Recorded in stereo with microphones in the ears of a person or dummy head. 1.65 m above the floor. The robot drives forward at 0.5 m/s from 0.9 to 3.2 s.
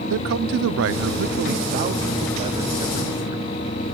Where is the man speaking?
65° right (ahead or behind), 0.5 m; by 3.5 s 20° right (ahead or behind), 1.3 m.